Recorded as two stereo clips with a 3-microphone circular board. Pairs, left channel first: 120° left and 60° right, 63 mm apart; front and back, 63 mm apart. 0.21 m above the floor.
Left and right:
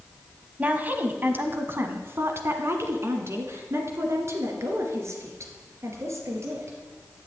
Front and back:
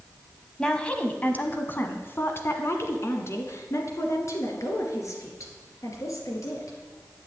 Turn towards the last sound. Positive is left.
turn(degrees=-25)